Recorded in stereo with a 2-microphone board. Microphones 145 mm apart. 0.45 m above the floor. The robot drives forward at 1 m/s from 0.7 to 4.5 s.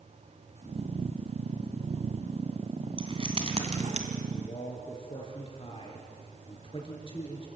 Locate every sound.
3.0 s keys jangling: 35° right (ahead or behind), 3 m; by 4.1 s 50° right (ahead or behind), 2 m
4.3 s a man speaking: 35° left (ahead or behind), 5.5 m